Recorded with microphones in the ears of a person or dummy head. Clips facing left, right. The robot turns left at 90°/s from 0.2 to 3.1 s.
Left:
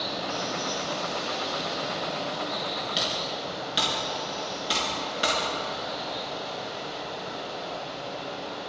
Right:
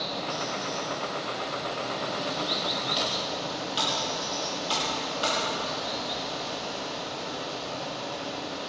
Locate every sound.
0.0 s running water: 165° left, 2.5 m; by 8.7 s 95° right, 2.5 m
3.0 s typing on a keyboard: 10° left (ahead or behind), 4 m; by 6.2 s 25° left (ahead or behind), 4 m